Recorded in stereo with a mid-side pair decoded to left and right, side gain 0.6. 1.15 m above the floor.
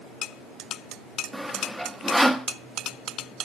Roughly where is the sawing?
Ahead.